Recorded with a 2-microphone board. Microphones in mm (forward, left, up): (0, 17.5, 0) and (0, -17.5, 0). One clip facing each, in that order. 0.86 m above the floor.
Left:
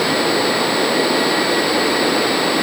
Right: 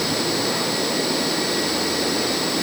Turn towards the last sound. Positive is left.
No sound to turn to.